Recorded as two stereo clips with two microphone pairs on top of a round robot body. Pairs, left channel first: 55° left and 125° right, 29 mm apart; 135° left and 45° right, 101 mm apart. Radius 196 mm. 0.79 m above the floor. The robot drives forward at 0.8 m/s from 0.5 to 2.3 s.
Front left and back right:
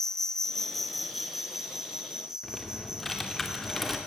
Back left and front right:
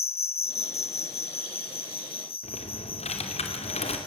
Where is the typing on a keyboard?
135° left, 2.5 m.